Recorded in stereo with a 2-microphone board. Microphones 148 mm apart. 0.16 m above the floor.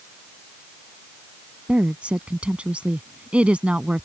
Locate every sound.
1.7 s a woman speaking: 10° right (ahead or behind)